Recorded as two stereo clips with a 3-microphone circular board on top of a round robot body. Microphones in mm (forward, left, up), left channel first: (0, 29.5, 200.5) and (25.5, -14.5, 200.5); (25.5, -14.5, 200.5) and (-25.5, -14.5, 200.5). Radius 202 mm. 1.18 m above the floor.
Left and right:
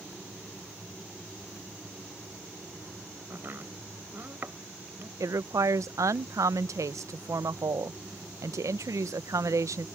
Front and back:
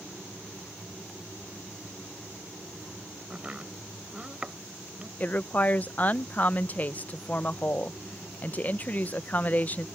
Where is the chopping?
110° right.